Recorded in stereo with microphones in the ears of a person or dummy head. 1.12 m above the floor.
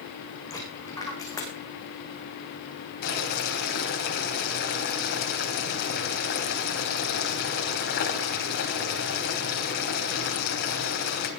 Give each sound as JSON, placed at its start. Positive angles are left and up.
{"t": 0.5, "sound": "a dropped coin", "side_deg": 15, "distance_m": 5.5}
{"t": 3.0, "sound": "boiling", "side_deg": 55, "distance_m": 3.5}